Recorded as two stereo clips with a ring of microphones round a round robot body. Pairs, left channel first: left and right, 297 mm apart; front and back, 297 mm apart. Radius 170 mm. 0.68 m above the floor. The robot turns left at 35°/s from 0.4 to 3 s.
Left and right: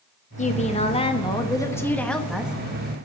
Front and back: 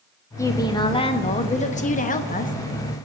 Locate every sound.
0.4 s a woman speaking: 70° left, 1.1 m; by 2.5 s 10° right, 1.1 m